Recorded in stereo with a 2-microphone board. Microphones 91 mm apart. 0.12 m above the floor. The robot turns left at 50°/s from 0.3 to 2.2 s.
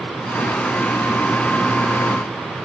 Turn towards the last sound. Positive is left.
No sound to turn to.